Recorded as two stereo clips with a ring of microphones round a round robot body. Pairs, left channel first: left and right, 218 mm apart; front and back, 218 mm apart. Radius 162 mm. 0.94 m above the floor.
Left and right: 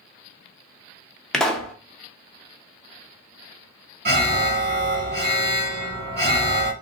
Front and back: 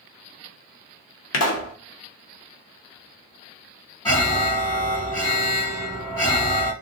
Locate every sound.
1.3 s a pop: straight ahead, 0.8 m
4.0 s an alarm: 75° right, 1.6 m